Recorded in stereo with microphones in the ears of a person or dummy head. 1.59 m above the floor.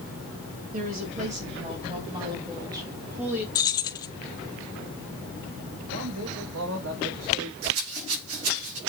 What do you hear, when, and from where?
0.7 s a woman speaking: 45° right (ahead or behind), 2.5 m; by 3.5 s 10° right (ahead or behind), 3 m
3.5 s keys jangling: 20° left (ahead or behind), 0.8 m
5.9 s a man speaking: 75° right (ahead or behind), 3 m
7.6 s a rattle: 80° right, 5 m